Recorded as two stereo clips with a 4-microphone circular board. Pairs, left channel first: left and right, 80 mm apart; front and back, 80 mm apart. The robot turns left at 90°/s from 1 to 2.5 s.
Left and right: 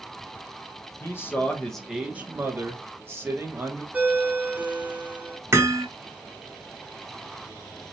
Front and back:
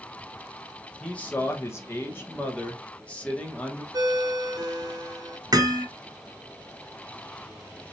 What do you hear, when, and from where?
1.0 s a man speaking: 75° left, 0.7 m; by 3.8 s 60° right, 0.7 m
3.9 s a ringtone: 160° right, 0.8 m
5.5 s hammering: 145° right, 0.8 m